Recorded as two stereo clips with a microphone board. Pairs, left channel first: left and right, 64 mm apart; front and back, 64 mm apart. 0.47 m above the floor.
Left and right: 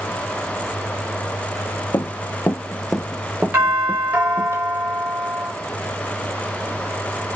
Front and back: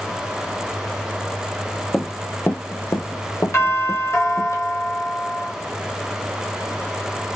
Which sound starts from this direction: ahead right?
A doorbell, at 3.5 s.